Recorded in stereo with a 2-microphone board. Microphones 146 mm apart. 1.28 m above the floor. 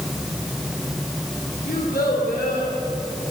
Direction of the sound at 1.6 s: 75° left (ahead or behind).